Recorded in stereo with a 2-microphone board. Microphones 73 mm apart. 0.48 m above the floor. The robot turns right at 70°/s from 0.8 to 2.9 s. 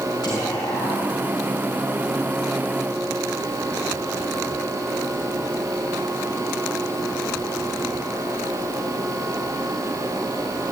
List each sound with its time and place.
0.2 s whispering: 75° left (ahead or behind), 4.5 m; by 1.2 s 65° left (ahead or behind), 4.5 m